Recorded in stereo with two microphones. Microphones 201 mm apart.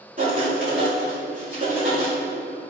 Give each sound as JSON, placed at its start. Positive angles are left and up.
{"t": 0.2, "sound": "writing", "side_deg": -45, "distance_m": 3.0}